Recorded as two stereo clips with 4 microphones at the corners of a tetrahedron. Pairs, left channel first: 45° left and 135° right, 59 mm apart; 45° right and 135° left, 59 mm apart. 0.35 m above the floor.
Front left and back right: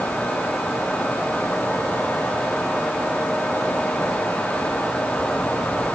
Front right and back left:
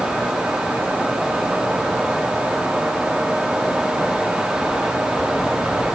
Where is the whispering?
No whispering in this recording.